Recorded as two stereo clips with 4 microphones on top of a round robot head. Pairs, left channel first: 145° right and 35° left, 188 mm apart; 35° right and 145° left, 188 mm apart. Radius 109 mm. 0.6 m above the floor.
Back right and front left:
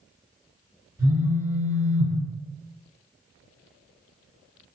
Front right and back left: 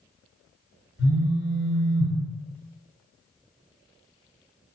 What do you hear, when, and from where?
1.0 s a phone buzzing: 35° right, 1.9 m